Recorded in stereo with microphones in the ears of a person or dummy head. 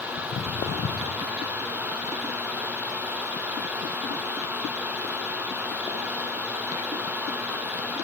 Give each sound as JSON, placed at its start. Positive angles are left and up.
{"t": 0.2, "sound": "footsteps", "side_deg": 35, "distance_m": 4.0}